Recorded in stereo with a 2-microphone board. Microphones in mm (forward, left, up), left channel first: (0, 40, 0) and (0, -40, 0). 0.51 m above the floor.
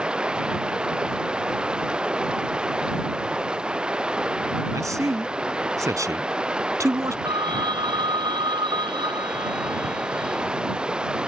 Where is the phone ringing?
80° right.